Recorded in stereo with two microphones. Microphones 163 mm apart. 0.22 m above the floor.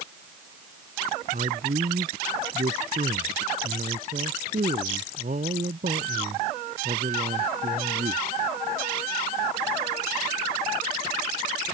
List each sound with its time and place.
1.3 s a man speaking: 55° right (ahead or behind)